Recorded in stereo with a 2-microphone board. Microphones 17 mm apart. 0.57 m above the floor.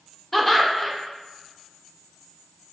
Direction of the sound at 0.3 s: 15° left (ahead or behind).